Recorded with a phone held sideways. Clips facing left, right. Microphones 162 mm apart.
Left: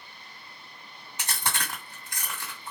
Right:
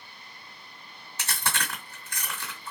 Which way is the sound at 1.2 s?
15° left (ahead or behind).